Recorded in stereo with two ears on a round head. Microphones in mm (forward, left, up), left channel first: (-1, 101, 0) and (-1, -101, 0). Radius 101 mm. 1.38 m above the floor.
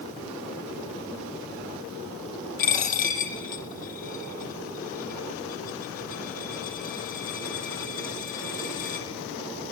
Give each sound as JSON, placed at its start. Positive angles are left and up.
{"t": 2.6, "sound": "a dropped coin", "side_deg": 40, "distance_m": 3.0}